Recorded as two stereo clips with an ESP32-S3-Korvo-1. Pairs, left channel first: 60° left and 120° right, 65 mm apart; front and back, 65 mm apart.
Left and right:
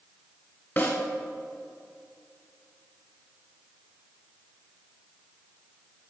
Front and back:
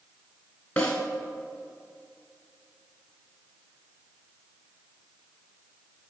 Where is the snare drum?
50° left, 1.6 m.